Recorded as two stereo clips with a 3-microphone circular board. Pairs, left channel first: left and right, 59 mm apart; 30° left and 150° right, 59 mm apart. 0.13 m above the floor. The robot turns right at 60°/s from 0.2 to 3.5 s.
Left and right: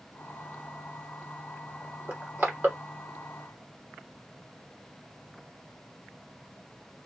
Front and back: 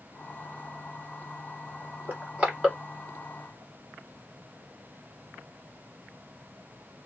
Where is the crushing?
115° right, 1.9 m; by 2.8 s 75° right, 1.9 m.